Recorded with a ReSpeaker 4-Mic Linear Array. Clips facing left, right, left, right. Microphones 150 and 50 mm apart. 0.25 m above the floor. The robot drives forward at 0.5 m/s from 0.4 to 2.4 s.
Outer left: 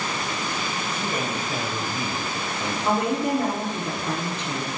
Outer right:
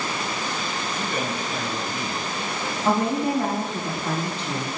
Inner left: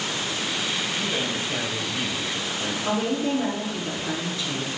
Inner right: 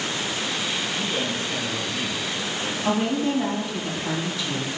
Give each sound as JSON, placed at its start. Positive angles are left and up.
{"t": 1.0, "sound": "a man speaking", "side_deg": 25, "distance_m": 1.4}
{"t": 2.9, "sound": "a woman speaking", "side_deg": -30, "distance_m": 2.0}